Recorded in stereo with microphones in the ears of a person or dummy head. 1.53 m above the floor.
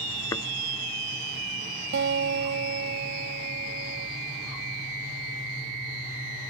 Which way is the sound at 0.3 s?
20° left (ahead or behind).